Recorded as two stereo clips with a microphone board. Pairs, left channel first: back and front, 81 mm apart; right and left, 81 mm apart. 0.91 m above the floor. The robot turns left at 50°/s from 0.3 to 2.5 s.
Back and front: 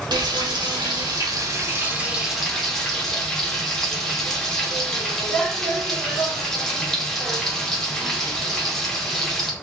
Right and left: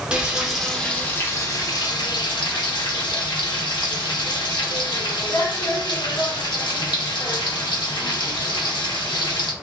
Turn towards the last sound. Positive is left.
turn(degrees=-95)